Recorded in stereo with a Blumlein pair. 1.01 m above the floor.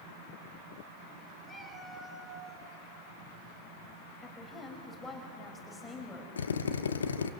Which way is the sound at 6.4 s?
70° left.